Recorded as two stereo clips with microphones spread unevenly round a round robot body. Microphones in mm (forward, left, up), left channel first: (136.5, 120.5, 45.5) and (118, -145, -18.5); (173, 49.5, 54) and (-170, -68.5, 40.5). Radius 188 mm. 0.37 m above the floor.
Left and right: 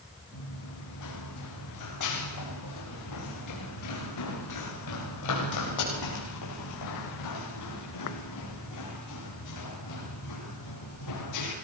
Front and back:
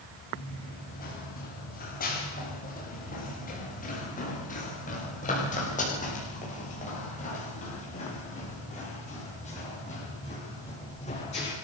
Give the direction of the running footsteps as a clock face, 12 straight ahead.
9 o'clock.